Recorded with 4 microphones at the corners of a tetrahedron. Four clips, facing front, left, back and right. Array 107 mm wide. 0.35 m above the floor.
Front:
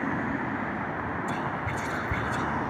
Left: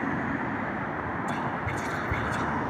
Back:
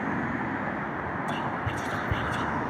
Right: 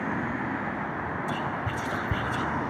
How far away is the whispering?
About 1.7 m.